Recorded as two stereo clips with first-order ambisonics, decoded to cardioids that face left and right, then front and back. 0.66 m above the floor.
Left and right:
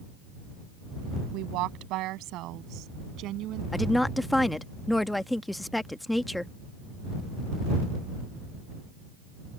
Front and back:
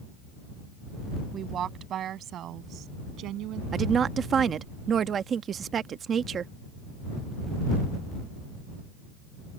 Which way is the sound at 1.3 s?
120° right.